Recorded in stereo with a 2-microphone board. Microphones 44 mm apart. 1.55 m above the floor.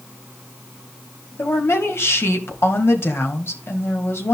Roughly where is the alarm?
I don't hear an alarm.